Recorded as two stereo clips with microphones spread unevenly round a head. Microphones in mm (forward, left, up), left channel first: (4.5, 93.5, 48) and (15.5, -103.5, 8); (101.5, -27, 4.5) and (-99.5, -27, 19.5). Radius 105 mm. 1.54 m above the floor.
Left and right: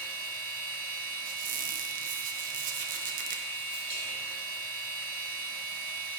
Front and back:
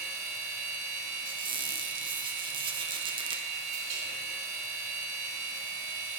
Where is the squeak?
135° right, 0.6 m.